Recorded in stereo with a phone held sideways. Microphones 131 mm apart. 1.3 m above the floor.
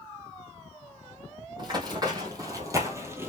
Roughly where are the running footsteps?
Right.